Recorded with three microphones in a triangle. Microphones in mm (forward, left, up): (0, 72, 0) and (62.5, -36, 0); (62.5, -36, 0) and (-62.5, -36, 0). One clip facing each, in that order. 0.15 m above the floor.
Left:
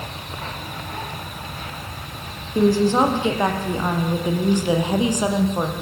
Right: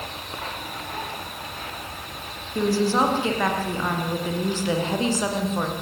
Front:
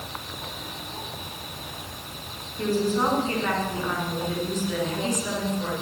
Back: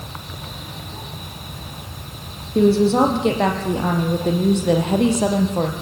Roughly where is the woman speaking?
Behind.